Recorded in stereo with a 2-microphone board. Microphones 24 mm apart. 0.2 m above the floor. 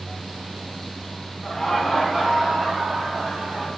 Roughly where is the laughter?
Centre.